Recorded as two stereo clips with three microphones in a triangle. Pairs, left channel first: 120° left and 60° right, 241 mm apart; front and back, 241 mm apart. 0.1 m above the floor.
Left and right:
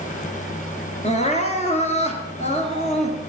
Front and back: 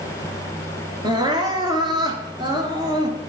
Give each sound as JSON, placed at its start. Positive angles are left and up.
{"t": 1.0, "sound": "crying", "azimuth_deg": 130, "distance_m": 1.4}